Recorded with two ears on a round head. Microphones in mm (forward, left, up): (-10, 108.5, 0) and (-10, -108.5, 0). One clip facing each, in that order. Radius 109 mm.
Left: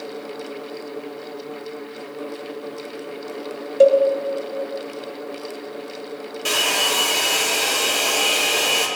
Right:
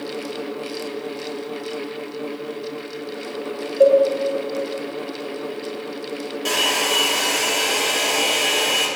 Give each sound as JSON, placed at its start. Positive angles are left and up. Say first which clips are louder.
{"t": 3.8, "sound": "a cowbell", "louder": "even", "side_deg": 55, "distance_m": 0.6}
{"t": 6.5, "sound": "a hair dryer", "louder": "even", "side_deg": 5, "distance_m": 0.9}